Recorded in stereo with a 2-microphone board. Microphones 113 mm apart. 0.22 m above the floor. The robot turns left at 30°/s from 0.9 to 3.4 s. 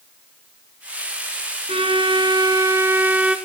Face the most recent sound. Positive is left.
turn(degrees=-175)